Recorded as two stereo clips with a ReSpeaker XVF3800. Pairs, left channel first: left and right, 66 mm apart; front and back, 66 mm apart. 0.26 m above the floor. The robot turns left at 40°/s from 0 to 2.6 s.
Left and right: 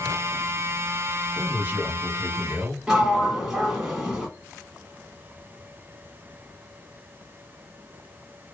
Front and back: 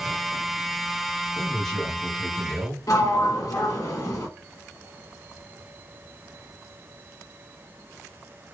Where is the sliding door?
10° right, 1.0 m.